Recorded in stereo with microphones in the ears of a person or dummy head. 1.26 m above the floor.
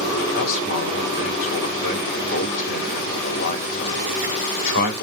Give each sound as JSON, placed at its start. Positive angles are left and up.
{"t": 0.3, "sound": "a man speaking", "side_deg": 60, "distance_m": 2.5}